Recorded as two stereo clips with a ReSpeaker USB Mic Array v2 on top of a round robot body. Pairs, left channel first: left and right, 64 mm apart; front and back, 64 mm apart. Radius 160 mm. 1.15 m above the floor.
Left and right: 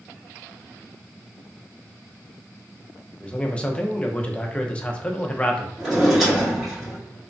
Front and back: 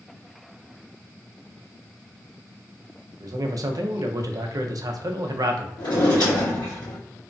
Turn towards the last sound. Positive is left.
turn(degrees=0)